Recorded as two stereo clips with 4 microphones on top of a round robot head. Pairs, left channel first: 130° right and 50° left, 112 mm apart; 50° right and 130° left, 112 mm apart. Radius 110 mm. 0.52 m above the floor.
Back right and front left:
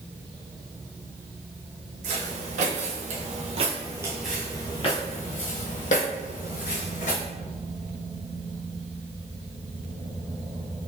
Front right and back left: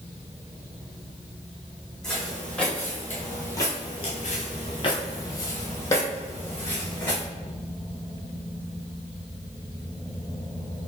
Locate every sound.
2.0 s footsteps: 35° left, 1.6 m; by 7.2 s 125° right, 2 m